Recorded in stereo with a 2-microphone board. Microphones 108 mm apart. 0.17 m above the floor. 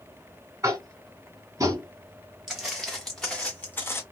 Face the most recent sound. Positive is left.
turn(degrees=25)  # may be behind; listen again after turning